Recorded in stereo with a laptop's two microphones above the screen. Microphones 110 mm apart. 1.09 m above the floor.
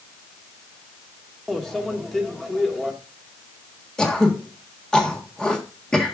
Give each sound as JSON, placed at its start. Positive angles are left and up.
{"t": 1.5, "sound": "a microwave", "side_deg": 0, "distance_m": 1.6}
{"t": 4.0, "sound": "throat clearing", "side_deg": 5, "distance_m": 1.5}